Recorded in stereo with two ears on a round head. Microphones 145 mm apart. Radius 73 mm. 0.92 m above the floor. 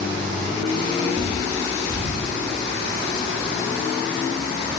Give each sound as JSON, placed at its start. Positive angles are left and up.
{"t": 1.1, "sound": "a bird", "side_deg": -15, "distance_m": 0.6}